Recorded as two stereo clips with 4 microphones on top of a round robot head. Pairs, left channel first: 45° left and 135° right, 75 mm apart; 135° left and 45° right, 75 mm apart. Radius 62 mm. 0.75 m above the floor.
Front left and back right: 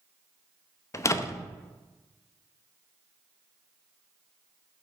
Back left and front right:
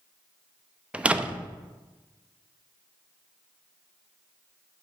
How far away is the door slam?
About 0.7 m.